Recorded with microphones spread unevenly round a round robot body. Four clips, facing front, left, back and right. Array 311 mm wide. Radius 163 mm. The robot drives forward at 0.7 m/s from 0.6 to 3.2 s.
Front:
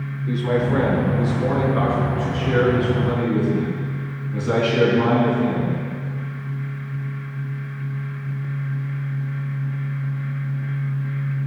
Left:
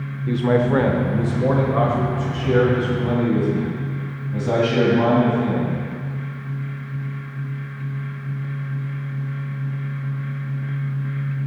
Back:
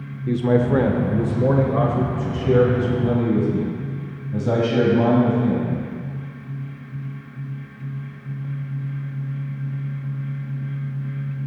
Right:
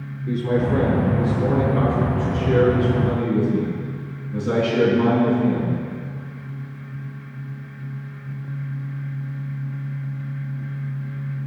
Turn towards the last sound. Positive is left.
turn(degrees=175)